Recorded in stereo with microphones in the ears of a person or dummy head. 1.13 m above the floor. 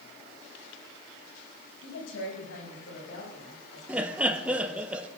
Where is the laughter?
15° right (ahead or behind), 0.6 m.